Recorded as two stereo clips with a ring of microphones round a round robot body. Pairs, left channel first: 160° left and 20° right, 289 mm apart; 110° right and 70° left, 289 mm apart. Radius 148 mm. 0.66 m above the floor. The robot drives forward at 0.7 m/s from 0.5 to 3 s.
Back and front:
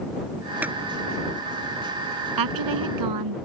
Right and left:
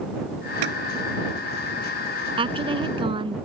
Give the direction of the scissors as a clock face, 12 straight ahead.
10 o'clock.